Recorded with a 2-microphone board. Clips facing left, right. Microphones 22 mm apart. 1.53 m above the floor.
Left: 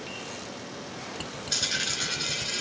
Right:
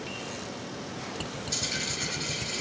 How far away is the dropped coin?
About 6 m.